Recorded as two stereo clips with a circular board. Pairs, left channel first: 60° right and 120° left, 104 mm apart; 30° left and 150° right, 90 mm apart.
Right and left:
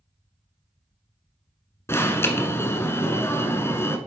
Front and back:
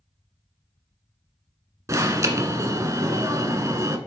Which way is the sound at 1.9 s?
115° right.